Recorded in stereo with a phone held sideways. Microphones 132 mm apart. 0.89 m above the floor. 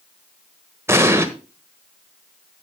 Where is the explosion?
20° right (ahead or behind), 1.2 m.